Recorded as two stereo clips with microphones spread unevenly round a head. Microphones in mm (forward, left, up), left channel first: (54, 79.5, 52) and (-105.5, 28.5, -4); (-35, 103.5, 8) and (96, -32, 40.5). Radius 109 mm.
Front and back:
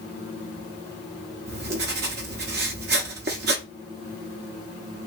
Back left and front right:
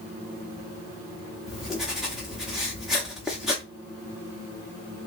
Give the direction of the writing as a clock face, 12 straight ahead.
4 o'clock.